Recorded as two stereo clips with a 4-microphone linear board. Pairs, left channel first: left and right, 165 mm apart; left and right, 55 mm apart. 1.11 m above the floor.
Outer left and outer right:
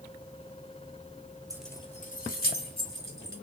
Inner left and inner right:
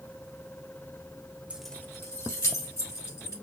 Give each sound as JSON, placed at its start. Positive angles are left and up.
{"t": 1.5, "sound": "keys jangling", "side_deg": -20, "distance_m": 0.5}